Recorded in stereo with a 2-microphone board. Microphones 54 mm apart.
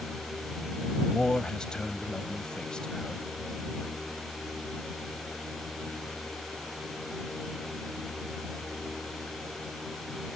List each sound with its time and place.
1.0 s a man speaking: 15° left (ahead or behind)